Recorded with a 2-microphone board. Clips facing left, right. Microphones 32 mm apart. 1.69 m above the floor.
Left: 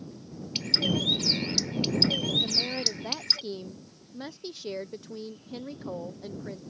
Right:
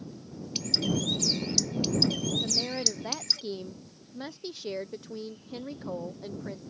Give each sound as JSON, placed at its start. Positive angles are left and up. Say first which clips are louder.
{"t": 0.6, "sound": "a bird", "louder": "left 2 dB", "side_deg": 30}
{"t": 2.4, "sound": "a woman speaking", "louder": "left 2 dB", "side_deg": -5}